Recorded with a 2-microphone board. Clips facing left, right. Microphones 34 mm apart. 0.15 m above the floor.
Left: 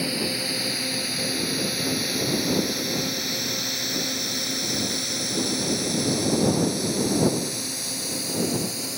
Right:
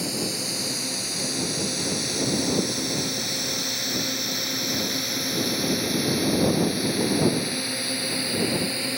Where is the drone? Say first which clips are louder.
Left 2 dB; 25° left (ahead or behind); by 9.0 s 35° right (ahead or behind).